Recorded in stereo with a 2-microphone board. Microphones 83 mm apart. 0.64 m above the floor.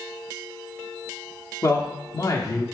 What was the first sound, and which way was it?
A man speaking, 40° left (ahead or behind).